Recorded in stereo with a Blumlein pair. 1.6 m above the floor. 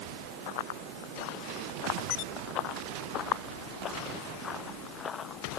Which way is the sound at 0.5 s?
50° left.